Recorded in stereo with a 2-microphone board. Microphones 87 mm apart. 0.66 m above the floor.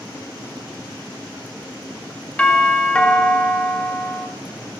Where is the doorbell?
10° left (ahead or behind), 1.7 m.